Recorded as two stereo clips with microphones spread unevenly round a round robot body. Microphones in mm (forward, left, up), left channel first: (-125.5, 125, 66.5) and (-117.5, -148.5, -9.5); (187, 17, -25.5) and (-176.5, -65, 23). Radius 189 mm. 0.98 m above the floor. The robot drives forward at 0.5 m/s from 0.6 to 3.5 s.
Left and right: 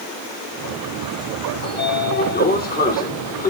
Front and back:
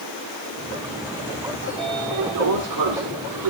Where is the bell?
No bell in this recording.